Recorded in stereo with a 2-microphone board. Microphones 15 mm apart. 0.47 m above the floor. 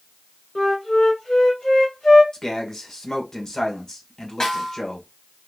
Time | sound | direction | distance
0.6 | a flute | 45° left (ahead or behind) | 1.4 m
2.3 | a man speaking | 40° left (ahead or behind) | 1.4 m
4.4 | a snare drum | 45° left (ahead or behind) | 1.7 m